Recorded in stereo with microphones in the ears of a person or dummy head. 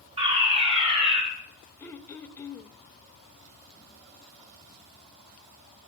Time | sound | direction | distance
0.2 | a fire alarm | 30° right (ahead or behind) | 6 m
1.8 | throat clearing | 10° left (ahead or behind) | 0.5 m